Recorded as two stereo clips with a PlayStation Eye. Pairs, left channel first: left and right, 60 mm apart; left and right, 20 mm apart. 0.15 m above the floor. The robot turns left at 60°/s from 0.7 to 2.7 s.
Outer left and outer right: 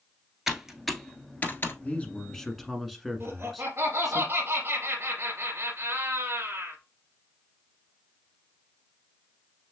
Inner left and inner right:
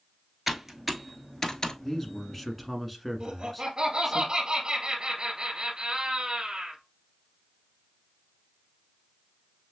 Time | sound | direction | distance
0.5 | typing on a keyboard | 10° right (ahead or behind) | 0.9 m
1.8 | a man speaking | 50° left | 1.3 m
3.2 | laughter | 55° right (ahead or behind) | 2.5 m